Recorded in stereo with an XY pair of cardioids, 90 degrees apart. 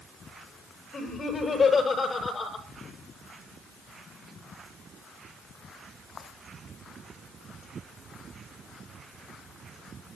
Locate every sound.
0.9 s laughter: 45° left, 7.5 m